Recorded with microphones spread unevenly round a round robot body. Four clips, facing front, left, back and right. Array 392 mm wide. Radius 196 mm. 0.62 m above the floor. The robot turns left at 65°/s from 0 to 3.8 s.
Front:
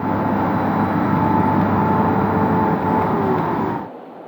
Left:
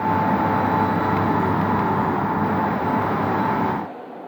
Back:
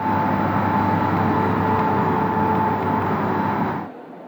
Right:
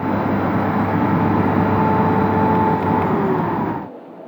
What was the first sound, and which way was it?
Only background noise.